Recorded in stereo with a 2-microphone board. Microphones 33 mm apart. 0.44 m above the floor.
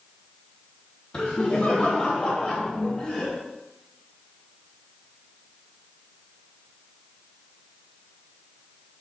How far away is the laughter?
About 1.5 m.